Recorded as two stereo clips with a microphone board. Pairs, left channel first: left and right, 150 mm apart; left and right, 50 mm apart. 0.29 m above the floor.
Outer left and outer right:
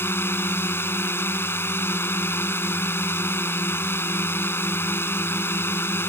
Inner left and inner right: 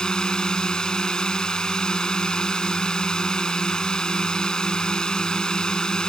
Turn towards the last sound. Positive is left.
turn(degrees=15)  # may be behind; listen again after turning